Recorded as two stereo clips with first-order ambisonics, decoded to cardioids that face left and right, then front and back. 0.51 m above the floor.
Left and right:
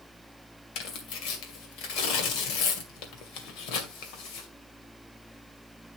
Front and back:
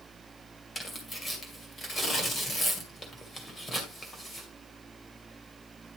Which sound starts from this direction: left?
Tearing paper, at 0.8 s.